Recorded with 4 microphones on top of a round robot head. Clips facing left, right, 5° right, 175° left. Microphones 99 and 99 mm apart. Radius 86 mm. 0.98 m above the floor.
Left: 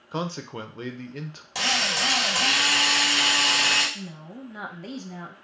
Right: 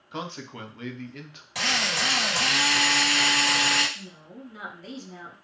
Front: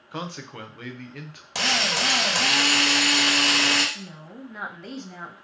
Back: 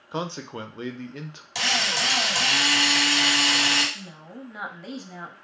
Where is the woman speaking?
95° left, 0.8 m.